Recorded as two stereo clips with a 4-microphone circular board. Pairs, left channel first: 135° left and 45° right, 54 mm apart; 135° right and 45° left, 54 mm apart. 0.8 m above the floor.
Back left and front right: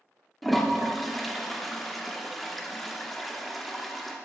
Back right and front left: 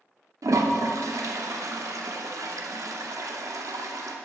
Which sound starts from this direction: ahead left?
A toilet flushing, at 0.4 s.